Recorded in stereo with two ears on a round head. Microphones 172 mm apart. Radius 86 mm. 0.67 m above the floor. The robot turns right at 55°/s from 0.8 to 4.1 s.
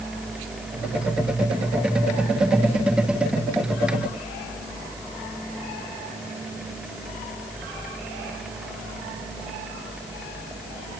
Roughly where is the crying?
I don't hear crying.